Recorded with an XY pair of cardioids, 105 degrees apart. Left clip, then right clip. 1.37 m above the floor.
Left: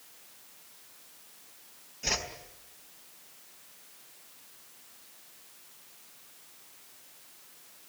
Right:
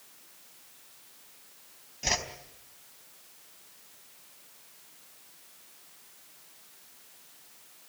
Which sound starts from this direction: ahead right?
A whoosh, at 2.0 s.